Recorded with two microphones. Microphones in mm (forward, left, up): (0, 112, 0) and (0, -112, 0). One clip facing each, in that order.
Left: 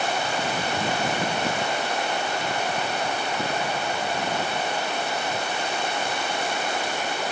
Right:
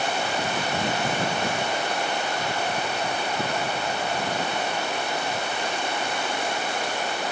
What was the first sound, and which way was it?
Only background noise.